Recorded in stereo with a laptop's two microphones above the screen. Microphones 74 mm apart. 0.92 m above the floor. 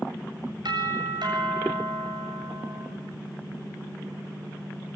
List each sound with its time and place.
0.7 s a doorbell: 80° right, 7 m